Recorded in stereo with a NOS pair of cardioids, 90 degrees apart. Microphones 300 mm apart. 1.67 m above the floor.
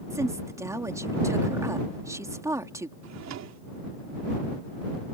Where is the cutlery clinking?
No cutlery clinking in this recording.